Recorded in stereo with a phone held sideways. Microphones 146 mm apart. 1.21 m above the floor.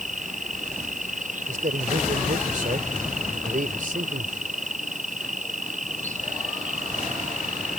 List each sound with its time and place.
0.0 s an insect: 60° right (ahead or behind)
1.5 s a man speaking: 70° right (ahead or behind)